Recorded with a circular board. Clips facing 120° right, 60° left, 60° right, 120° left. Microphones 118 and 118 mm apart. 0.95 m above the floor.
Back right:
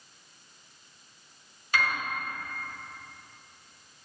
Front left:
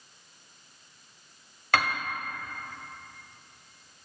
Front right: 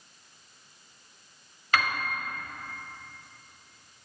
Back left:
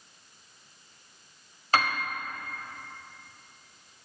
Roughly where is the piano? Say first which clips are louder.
Front left 3 dB, back left 2 dB; left.